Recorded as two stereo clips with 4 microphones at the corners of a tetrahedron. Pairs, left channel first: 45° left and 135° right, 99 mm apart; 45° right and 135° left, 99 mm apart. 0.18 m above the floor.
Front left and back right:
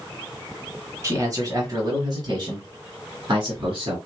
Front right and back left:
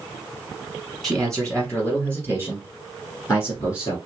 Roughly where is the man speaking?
Behind right.